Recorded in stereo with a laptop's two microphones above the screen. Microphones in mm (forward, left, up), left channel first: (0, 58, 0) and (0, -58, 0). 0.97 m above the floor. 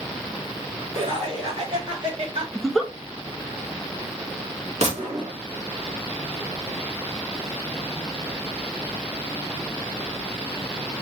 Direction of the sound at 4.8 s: 65° right (ahead or behind).